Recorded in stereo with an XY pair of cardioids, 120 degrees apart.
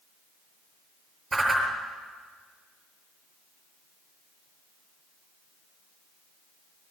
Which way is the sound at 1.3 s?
20° right.